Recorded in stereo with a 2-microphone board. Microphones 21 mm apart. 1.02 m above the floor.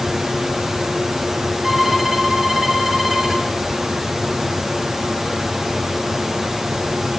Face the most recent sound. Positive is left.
turn(degrees=-25)  # may be behind; listen again after turning